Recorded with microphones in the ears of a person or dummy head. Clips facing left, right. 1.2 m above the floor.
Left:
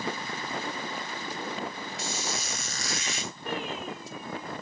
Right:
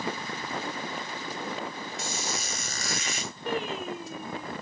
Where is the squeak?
40° right (ahead or behind), 2 m.